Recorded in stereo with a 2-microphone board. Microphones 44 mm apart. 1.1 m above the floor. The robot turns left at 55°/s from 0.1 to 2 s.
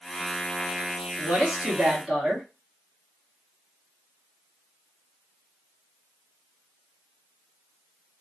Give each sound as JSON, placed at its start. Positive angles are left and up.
{"t": 1.2, "sound": "a woman speaking", "azimuth_deg": -130, "distance_m": 2.0}